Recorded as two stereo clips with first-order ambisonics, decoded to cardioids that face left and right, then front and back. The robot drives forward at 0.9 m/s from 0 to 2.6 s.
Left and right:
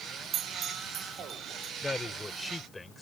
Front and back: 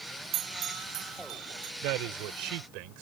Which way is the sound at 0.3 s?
140° right.